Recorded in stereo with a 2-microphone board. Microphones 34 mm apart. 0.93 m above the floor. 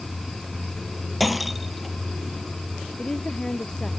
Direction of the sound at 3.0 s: 25° left (ahead or behind).